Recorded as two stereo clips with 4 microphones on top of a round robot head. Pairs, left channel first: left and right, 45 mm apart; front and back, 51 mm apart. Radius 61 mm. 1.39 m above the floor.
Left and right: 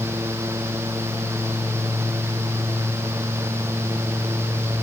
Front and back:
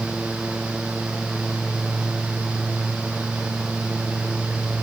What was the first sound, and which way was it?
Only background noise.